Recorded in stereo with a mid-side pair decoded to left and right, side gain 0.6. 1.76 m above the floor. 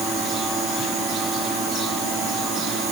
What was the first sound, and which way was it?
Only background noise.